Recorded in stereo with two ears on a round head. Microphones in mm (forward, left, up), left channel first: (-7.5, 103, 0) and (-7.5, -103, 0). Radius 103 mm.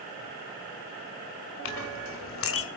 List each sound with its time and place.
1.6 s a clink: 60° left (ahead or behind), 2 m